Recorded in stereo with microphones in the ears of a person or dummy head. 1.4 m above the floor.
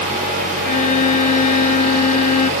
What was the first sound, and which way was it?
A violin, 45° left (ahead or behind).